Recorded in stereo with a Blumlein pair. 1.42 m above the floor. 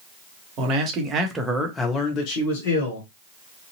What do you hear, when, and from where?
0.6 s a man speaking: 40° right, 1.2 m; by 3.1 s 70° left, 1.2 m